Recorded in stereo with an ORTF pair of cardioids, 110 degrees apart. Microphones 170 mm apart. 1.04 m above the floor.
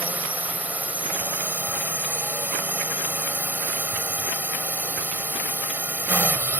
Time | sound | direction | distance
0.0 | a drone | 10° right | ?